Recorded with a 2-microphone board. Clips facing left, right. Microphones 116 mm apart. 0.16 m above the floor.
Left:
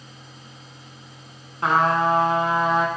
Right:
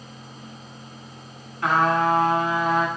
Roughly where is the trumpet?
Left.